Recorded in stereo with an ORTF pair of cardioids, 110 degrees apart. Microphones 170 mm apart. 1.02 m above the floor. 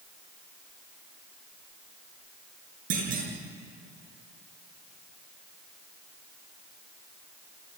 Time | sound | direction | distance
2.9 | a clunk | 55° right | 7.5 m